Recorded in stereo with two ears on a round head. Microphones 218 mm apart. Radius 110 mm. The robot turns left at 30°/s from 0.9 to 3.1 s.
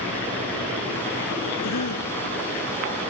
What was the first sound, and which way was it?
A cough, 75° left (ahead or behind).